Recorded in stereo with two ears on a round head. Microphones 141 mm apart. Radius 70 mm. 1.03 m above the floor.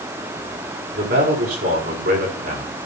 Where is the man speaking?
65° right (ahead or behind), 4.5 m.